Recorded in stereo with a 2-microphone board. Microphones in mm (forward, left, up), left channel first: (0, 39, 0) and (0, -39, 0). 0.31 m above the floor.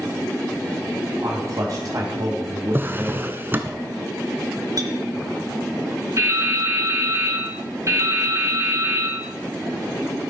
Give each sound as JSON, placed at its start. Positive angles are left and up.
{"t": 1.2, "sound": "a man speaking", "side_deg": -50, "distance_m": 2.5}
{"t": 2.7, "sound": "a drawer", "side_deg": -30, "distance_m": 0.7}
{"t": 4.8, "sound": "a clink", "side_deg": -55, "distance_m": 1.3}
{"t": 6.2, "sound": "dripping", "side_deg": -45, "distance_m": 1.8}